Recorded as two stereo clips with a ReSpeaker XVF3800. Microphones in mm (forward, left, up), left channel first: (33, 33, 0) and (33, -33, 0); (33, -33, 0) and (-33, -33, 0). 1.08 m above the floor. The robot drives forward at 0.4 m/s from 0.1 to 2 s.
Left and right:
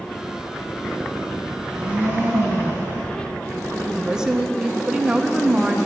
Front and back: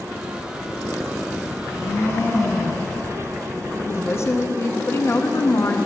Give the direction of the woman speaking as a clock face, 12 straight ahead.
12 o'clock.